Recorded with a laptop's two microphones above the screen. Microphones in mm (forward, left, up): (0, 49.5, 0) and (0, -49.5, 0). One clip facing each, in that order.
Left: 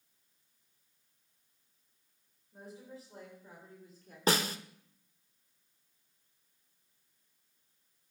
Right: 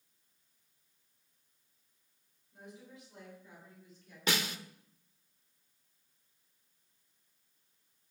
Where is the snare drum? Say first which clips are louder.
Left 5 dB; 35° left (ahead or behind), 0.7 m.